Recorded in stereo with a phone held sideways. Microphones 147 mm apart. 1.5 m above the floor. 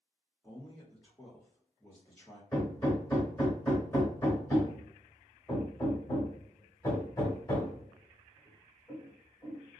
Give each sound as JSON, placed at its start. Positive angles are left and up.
{"t": 0.4, "sound": "a man speaking", "side_deg": 20, "distance_m": 1.3}
{"t": 2.5, "sound": "hammering", "side_deg": 20, "distance_m": 1.3}